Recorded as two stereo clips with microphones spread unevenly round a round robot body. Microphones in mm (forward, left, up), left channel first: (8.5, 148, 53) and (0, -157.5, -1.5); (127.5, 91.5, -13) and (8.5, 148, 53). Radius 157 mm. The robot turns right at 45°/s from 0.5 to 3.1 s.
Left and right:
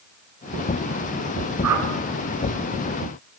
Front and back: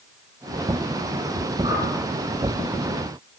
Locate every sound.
1.6 s a whoosh: 130° right, 8 m; by 1.9 s 120° right, 8 m